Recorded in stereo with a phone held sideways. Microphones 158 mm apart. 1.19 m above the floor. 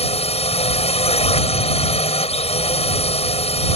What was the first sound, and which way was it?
A drone, 40° left (ahead or behind).